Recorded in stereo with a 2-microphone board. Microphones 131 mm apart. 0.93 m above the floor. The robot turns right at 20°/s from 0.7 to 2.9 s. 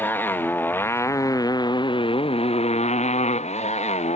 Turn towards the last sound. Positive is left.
turn(degrees=60)